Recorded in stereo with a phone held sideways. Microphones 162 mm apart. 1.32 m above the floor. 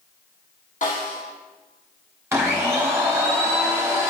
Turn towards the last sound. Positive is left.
turn(degrees=-15)  # may be behind; listen again after turning